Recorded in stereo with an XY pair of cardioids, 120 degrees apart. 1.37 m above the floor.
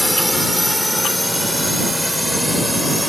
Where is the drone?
5° left; by 3.1 s straight ahead.